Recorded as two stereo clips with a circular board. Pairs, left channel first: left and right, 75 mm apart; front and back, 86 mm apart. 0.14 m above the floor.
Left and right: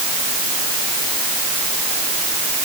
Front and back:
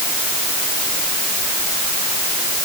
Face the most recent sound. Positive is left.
No sound to turn to.